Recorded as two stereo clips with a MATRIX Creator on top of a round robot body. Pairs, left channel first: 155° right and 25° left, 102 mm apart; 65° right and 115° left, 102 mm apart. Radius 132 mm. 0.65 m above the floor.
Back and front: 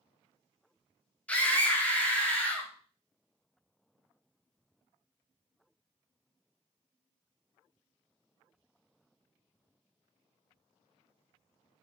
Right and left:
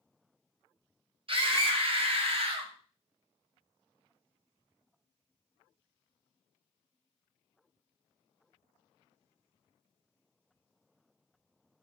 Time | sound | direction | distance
1.3 | a scream | 125° left | 2 m